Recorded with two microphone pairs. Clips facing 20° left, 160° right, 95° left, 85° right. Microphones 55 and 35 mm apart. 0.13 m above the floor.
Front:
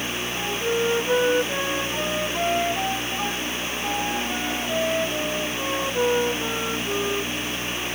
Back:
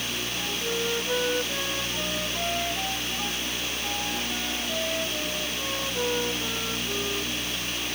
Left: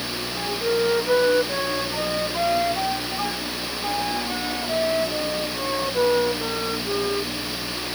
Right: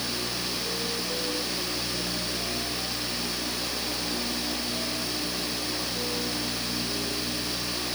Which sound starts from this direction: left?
A flute, at 0.4 s.